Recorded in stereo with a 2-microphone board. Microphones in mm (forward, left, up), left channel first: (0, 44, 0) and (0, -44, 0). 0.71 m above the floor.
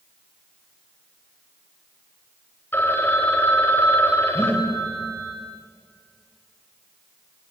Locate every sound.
2.7 s a phone ringing: 25° left (ahead or behind), 2.5 m
4.3 s breathing: 15° left (ahead or behind), 7.5 m